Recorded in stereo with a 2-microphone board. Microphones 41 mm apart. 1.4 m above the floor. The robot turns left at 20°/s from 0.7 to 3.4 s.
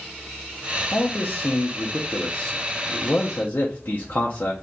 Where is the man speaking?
120° left, 0.5 m; by 4.5 s 70° left, 0.5 m.